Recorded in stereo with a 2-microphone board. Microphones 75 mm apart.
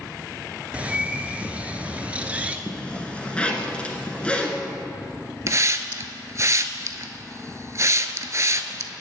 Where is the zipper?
15° left (ahead or behind), 1.3 m.